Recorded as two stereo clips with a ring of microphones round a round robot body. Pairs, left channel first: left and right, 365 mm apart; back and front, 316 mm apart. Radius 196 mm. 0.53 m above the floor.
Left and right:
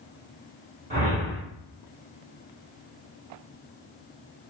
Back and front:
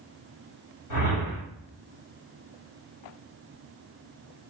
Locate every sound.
0.9 s a whoosh: 165° right, 1.7 m